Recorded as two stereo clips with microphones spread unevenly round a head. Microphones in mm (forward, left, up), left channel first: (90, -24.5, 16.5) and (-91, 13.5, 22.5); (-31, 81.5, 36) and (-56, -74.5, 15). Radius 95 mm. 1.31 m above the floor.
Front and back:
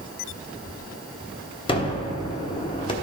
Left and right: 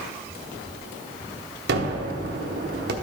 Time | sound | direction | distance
1.7 | a gunshot | 75° right | 0.9 m